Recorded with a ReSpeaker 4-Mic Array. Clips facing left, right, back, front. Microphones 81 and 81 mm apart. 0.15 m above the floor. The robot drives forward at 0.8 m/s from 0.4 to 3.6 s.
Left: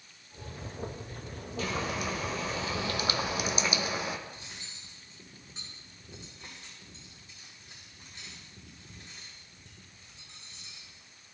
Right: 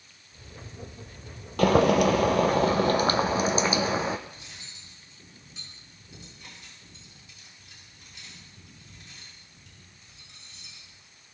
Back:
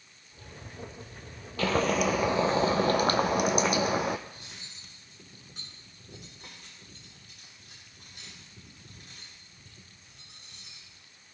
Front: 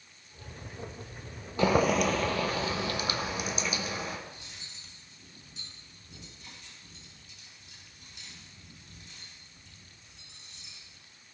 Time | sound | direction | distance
1.6 | boiling | 70° right | 0.9 m
4.3 | cutlery clinking | 145° left | 8 m